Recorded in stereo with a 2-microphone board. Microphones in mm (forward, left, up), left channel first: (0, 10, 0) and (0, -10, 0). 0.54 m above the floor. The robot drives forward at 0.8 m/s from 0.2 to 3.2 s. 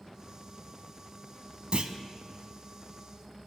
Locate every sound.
1.7 s a clunk: 45° right (ahead or behind), 0.5 m; by 1.9 s 35° right (ahead or behind), 0.6 m